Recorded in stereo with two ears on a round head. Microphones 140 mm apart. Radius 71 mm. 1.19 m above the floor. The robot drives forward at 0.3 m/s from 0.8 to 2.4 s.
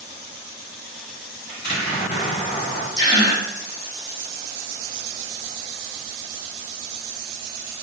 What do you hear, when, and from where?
1.5 s an explosion: 60° left (ahead or behind), 2.0 m; by 2.9 s 65° left (ahead or behind), 2.0 m
3.0 s a gasp: 25° left (ahead or behind), 0.7 m